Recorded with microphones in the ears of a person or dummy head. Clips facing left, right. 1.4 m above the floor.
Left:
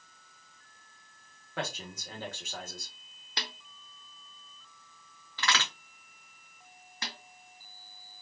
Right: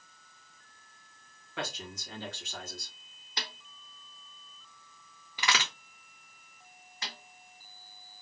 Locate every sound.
1.6 s a man speaking: 40° left (ahead or behind), 1.3 m
3.4 s a snare drum: 55° left (ahead or behind), 0.9 m
5.4 s a crack: 15° right (ahead or behind), 0.9 m
7.0 s a snare drum: 45° left (ahead or behind), 1.5 m